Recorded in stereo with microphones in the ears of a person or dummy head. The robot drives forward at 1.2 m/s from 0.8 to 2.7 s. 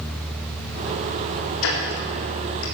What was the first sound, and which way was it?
Ticking, 80° left.